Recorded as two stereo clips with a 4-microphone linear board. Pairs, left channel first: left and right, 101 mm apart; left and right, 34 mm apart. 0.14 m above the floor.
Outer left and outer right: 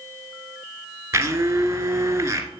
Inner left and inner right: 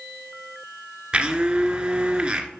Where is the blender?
30° right (ahead or behind), 1.7 m.